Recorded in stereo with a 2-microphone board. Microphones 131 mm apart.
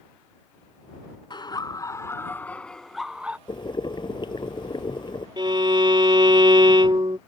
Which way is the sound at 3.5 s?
35° left (ahead or behind).